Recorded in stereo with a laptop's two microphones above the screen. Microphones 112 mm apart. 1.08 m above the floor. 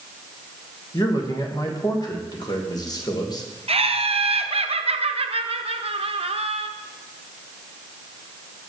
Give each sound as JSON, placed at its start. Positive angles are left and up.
{"t": 0.9, "sound": "a man speaking", "side_deg": 40, "distance_m": 1.3}
{"t": 3.7, "sound": "laughter", "side_deg": -70, "distance_m": 0.7}